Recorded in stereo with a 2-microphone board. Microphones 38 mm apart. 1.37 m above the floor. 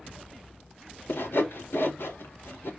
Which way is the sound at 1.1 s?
80° left.